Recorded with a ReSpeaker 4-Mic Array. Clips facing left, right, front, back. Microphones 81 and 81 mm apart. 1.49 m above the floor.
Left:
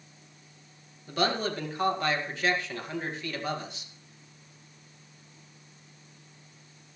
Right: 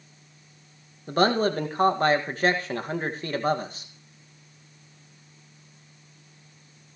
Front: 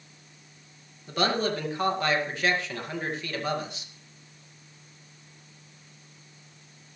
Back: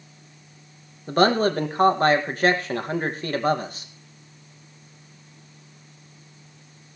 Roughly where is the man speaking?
Behind right.